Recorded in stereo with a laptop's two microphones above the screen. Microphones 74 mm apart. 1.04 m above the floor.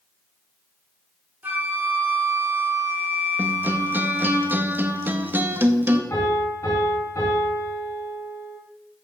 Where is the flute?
25° right (ahead or behind), 2.0 m.